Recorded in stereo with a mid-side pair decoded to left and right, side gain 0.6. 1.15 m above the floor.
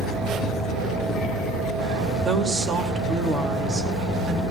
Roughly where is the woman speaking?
Ahead right.